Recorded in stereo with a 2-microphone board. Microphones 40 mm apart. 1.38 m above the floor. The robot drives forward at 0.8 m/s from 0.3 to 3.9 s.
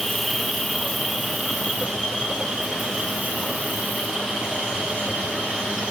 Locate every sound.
0.0 s an insect: 5° left (ahead or behind), 1.1 m; by 5.9 s centre (ahead or behind), 4 m